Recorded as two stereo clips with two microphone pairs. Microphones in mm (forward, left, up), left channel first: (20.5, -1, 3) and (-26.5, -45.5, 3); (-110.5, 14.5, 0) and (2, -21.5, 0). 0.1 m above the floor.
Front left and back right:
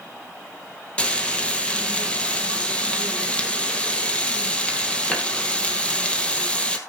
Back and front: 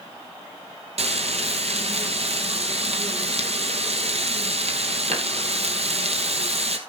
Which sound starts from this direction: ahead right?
Frying, at 1.0 s.